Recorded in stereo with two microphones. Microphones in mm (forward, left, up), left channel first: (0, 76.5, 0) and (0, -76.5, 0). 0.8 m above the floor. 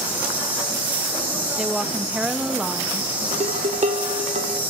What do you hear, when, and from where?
0.0 s an insect: 10° right (ahead or behind), 6 m
1.6 s a woman speaking: 5° right (ahead or behind), 0.7 m
3.3 s dishes clattering: 55° right (ahead or behind), 0.8 m